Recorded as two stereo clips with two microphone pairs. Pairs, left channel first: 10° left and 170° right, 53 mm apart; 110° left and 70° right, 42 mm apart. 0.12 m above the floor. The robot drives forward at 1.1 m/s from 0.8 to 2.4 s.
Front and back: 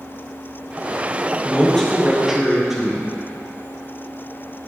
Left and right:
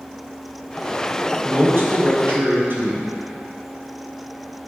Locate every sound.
1.4 s a man speaking: 65° right, 2.5 m; by 3.1 s 90° right, 2.5 m